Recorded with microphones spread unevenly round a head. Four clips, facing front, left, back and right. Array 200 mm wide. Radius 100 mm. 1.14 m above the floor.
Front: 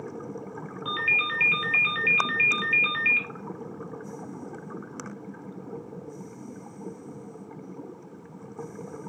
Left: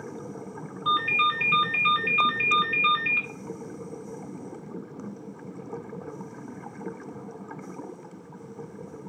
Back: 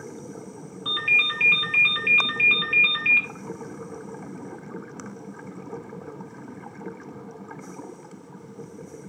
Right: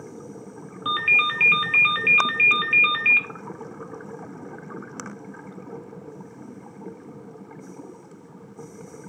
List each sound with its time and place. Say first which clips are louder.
0.8 s a ringtone: left 1 dB, back 1 dB; 95° right, 1.1 m